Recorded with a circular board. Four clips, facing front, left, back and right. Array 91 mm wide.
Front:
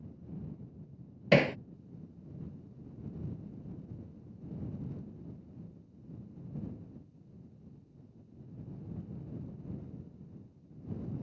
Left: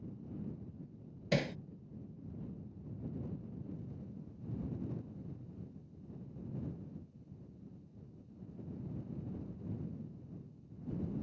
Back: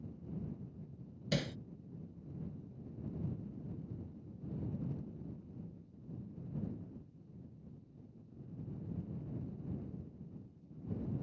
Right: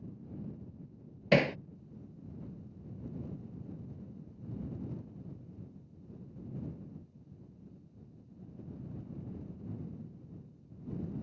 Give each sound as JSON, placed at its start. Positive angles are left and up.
{"t": 1.3, "sound": "hammering", "azimuth_deg": -30}